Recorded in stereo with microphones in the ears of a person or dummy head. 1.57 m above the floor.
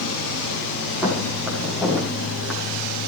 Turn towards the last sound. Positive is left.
turn(degrees=5)  # may be behind; listen again after turning